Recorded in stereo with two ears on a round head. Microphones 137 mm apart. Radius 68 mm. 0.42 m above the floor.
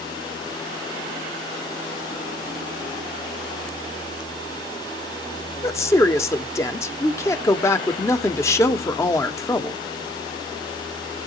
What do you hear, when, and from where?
5.6 s a woman speaking: 20° left (ahead or behind), 0.8 m